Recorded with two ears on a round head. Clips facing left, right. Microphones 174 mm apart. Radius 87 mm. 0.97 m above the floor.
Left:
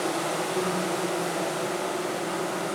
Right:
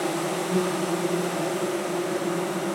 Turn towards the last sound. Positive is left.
turn(degrees=-65)  # may be behind; listen again after turning